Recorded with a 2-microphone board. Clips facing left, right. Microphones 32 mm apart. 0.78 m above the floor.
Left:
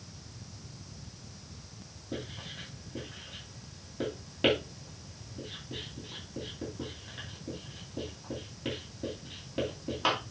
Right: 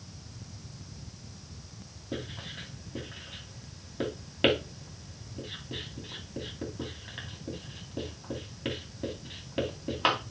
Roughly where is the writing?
Right.